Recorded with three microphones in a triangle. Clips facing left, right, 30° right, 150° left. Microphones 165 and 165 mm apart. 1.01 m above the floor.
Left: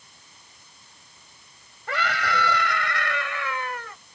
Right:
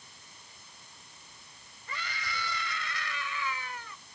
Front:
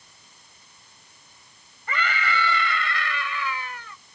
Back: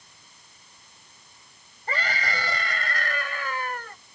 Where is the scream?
95° left; by 4.0 s 115° left.